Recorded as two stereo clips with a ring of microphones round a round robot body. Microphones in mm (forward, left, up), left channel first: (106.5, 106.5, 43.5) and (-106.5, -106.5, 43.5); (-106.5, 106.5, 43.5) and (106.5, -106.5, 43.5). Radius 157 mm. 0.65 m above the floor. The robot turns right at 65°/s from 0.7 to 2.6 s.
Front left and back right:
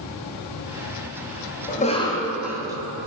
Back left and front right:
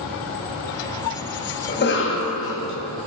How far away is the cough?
About 1.0 m.